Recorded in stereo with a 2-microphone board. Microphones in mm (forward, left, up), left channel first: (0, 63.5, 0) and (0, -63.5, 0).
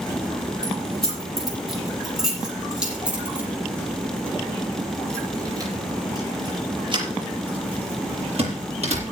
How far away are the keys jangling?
About 8 m.